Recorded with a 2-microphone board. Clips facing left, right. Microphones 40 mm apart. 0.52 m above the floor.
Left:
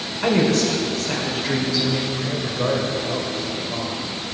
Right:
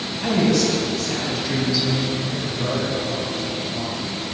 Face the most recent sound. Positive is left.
turn(degrees=60)  # may be behind; listen again after turning